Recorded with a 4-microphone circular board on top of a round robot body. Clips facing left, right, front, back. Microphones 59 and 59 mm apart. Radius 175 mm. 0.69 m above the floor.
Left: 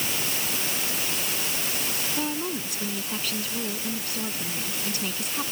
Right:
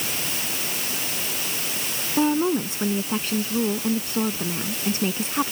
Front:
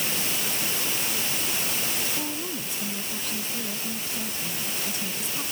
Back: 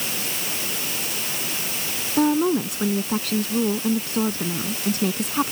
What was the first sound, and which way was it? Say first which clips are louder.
A woman speaking: right 12 dB, back 14 dB; 150° right.